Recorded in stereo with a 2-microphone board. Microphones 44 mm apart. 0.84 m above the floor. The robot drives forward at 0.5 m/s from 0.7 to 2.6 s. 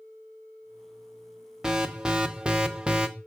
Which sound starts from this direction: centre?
An alarm, at 1.6 s.